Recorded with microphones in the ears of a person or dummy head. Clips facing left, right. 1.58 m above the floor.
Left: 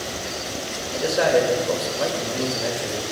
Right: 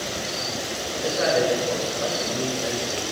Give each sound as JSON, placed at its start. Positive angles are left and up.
{"t": 0.8, "sound": "a man speaking", "side_deg": 70, "distance_m": 2.5}